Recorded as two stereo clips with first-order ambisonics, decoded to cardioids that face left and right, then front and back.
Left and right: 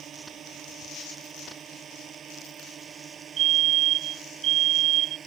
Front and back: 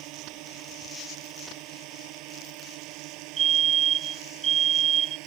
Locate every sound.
0.0 s a drone: 150° right; by 5.3 s 155° right
3.4 s a fire alarm: 125° right